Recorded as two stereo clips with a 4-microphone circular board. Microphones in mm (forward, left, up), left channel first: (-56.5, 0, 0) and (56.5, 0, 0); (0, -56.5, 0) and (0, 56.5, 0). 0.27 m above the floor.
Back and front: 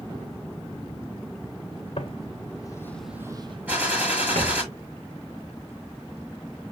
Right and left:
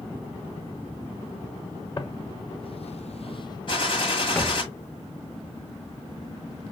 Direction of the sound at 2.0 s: 145° right.